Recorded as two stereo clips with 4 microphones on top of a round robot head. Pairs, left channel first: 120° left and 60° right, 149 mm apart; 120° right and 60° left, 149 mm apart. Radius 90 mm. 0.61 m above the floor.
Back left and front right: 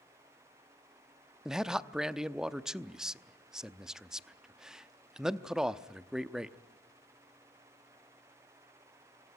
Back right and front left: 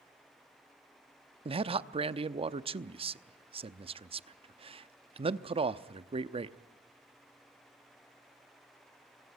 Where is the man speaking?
25° left, 0.8 m.